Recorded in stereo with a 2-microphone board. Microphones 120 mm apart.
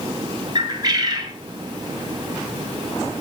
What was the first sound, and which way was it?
A bird, 30° right (ahead or behind).